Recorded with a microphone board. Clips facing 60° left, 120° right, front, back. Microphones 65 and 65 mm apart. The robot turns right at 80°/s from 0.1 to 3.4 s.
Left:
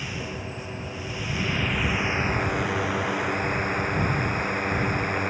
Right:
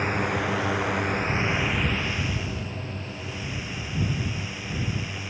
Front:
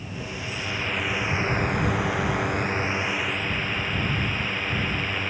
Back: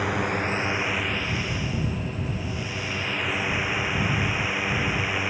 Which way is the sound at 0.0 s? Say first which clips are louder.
Right 8 dB, back 9 dB; 165° right.